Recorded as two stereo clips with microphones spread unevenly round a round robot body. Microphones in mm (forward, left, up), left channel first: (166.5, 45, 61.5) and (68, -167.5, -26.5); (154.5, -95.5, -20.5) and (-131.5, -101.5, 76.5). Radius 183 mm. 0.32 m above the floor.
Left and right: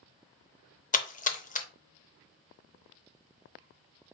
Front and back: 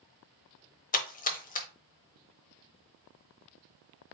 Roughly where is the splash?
Ahead.